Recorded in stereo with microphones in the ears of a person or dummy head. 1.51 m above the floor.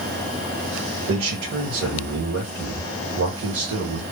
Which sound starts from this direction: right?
A man speaking, at 1.1 s.